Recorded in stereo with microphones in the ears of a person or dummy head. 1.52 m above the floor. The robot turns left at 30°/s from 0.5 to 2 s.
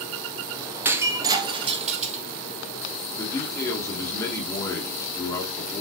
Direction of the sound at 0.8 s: 10° right.